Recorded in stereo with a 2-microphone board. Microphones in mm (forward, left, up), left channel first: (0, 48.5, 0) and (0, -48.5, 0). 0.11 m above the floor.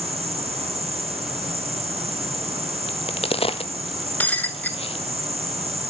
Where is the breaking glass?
15° left (ahead or behind), 1.0 m.